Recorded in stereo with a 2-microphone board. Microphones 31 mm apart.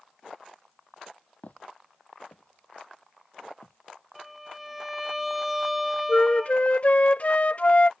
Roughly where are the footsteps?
Left.